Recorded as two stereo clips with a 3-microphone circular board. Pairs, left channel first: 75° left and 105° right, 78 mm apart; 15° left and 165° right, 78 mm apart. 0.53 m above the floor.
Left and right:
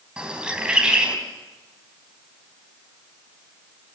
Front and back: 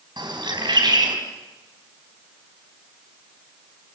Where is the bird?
175° left, 4 m.